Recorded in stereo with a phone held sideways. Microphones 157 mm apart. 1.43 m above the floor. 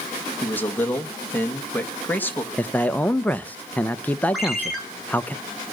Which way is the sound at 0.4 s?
10° left (ahead or behind).